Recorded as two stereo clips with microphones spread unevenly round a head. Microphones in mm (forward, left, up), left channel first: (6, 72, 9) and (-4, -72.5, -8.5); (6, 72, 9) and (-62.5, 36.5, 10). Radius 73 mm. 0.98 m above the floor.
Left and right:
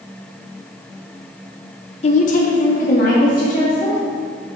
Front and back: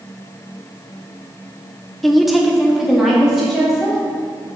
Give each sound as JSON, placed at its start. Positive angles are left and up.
{"t": 2.0, "sound": "a woman speaking", "azimuth_deg": 115, "distance_m": 0.6}